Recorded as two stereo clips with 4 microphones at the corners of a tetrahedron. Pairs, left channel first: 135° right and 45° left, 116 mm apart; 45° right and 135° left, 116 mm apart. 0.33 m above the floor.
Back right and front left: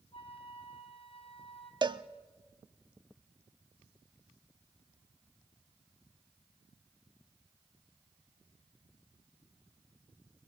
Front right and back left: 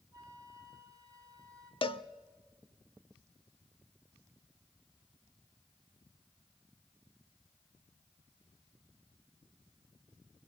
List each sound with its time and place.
0.1 s a flute: 165° right, 3 m
1.8 s a cowbell: 5° right, 0.5 m